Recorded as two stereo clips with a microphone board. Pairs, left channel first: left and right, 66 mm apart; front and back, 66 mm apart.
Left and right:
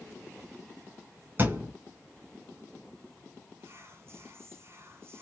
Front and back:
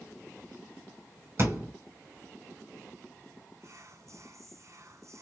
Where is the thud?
140° right, 2.5 m.